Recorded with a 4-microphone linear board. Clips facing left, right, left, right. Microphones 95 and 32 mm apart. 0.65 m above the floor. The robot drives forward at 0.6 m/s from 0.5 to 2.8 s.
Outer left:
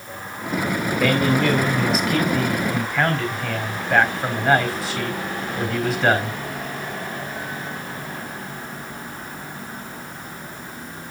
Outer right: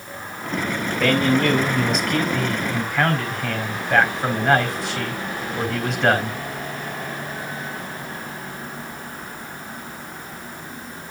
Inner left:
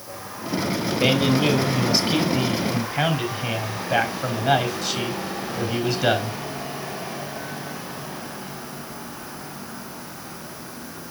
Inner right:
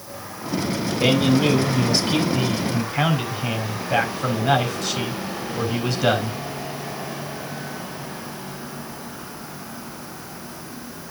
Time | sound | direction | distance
1.0 | a man speaking | centre (ahead or behind) | 3.5 m